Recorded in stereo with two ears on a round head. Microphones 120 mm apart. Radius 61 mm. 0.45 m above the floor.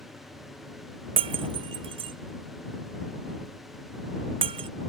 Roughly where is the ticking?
I don't hear ticking.